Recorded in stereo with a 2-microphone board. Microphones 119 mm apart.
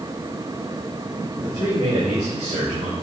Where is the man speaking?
35° right (ahead or behind), 2.5 m; by 2.9 s 85° right, 2.5 m.